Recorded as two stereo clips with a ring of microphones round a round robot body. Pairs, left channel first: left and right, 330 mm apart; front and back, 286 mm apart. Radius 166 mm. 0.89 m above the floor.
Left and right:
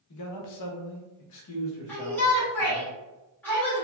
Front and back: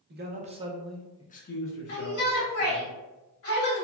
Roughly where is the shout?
Ahead.